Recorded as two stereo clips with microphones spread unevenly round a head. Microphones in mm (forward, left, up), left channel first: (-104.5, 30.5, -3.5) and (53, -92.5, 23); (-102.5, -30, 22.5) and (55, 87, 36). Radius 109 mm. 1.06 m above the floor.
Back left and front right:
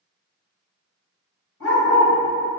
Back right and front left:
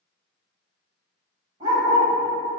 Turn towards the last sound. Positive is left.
turn(degrees=105)